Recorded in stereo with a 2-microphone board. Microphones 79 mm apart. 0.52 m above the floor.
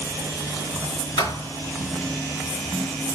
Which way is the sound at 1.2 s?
65° left (ahead or behind).